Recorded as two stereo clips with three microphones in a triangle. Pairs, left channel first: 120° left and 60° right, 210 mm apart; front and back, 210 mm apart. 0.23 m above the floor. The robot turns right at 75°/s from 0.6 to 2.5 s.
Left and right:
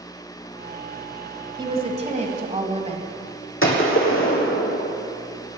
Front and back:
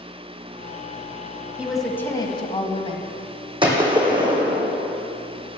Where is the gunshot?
115° left, 2 m.